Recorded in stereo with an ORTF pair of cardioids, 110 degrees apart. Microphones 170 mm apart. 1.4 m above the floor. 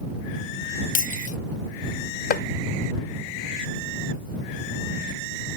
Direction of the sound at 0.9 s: 50° left.